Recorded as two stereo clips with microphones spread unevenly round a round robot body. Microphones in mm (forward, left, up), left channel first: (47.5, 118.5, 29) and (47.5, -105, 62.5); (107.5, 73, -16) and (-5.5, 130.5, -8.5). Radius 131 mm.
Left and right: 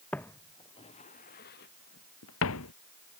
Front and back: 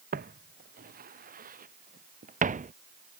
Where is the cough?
I don't hear a cough.